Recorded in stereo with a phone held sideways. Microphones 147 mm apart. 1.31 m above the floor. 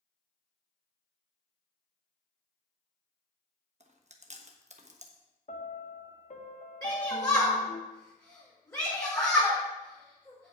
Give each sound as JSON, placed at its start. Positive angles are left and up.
{"t": 3.8, "sound": "chewing", "side_deg": -50, "distance_m": 1.1}
{"t": 5.5, "sound": "a piano", "side_deg": 50, "distance_m": 0.9}
{"t": 6.8, "sound": "a shout", "side_deg": 20, "distance_m": 4.5}